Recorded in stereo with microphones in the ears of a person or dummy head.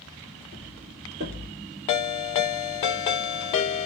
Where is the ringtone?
25° left (ahead or behind), 0.5 m.